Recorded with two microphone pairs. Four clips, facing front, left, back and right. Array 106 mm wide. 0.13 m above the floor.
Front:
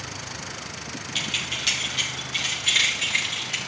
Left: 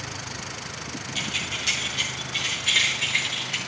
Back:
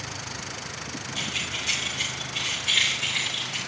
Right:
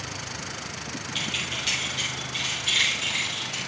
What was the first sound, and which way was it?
Keys jangling, 10° left.